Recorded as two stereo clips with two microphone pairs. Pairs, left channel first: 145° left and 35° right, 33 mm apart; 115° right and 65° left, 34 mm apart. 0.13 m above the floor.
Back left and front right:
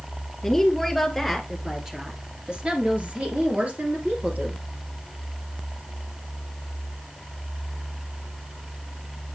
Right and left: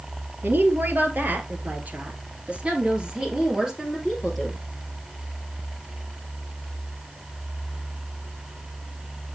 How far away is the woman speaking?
About 3 m.